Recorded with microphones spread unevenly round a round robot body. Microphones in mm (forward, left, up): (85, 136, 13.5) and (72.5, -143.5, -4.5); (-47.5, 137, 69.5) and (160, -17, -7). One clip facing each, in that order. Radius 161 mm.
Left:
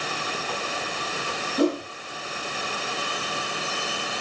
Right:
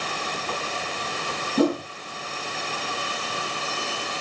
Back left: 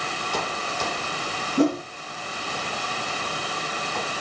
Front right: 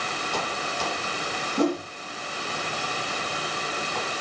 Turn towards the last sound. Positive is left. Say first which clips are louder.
# right 1 dB, back left 3 dB
turn(degrees=-145)